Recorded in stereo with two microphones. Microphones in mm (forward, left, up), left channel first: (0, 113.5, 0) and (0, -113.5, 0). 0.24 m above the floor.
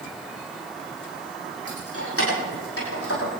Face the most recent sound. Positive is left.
turn(degrees=65)  # may be behind; listen again after turning